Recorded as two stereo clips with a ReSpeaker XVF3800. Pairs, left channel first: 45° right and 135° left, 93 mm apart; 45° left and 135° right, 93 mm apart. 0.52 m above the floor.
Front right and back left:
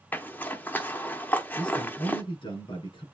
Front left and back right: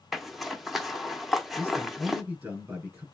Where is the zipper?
50° right, 0.8 m.